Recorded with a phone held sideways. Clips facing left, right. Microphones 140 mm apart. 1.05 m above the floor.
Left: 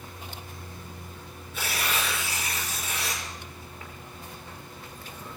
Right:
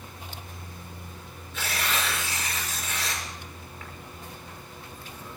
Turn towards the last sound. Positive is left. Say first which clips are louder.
# even
turn(degrees=10)  # may be behind; listen again after turning